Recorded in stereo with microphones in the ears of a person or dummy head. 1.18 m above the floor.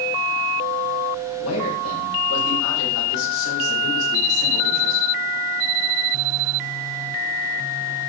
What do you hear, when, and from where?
1.4 s a man speaking: 90° left, 5 m; by 5.0 s 85° left, 8 m